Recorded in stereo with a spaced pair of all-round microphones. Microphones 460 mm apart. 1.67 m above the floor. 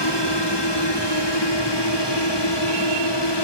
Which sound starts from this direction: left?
A drone, at 0.0 s.